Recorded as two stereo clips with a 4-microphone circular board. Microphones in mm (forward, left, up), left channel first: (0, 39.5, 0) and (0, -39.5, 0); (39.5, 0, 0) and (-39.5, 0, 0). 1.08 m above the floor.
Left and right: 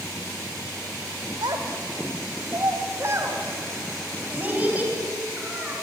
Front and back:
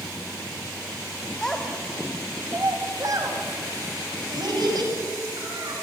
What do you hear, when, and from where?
1.4 s a child speaking: 80° right, 1.8 m; by 5.7 s 165° right, 7 m